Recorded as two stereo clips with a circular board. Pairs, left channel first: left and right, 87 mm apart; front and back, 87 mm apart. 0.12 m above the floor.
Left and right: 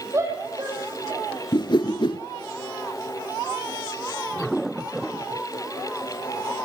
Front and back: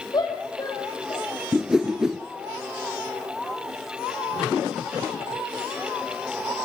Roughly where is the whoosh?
Left.